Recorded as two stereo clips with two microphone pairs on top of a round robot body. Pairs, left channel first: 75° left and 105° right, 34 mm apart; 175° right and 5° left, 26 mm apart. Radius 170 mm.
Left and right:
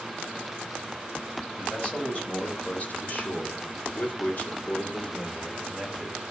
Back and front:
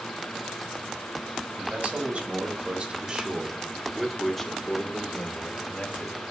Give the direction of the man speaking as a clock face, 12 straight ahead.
11 o'clock.